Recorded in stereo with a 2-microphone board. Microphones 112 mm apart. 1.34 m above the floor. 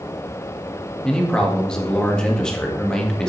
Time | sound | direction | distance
1.0 | a man speaking | 5° left (ahead or behind) | 2 m